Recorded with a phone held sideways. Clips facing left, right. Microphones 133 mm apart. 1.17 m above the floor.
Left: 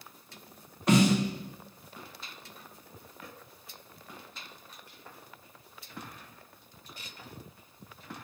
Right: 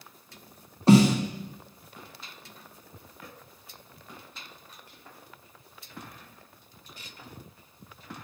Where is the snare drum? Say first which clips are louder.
Right 5 dB; 30° right (ahead or behind), 1.1 m.